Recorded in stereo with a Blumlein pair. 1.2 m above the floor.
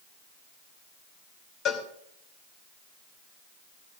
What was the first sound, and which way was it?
A cowbell, 30° left.